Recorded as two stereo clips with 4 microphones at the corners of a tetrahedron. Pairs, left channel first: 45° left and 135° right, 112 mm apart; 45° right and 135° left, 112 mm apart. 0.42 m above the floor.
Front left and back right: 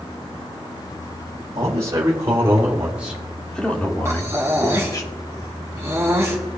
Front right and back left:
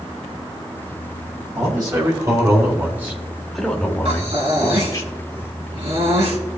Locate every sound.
1.6 s a man speaking: straight behind, 2.5 m; by 5.0 s 5° left, 2 m
4.0 s breathing: 160° left, 2.5 m